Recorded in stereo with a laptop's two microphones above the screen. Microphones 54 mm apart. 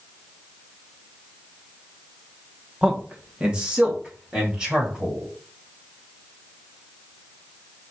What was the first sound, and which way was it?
A man speaking, 15° right (ahead or behind).